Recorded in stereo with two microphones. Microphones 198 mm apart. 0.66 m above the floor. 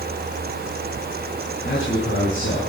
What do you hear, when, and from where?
1.6 s a man speaking: 80° left, 7.5 m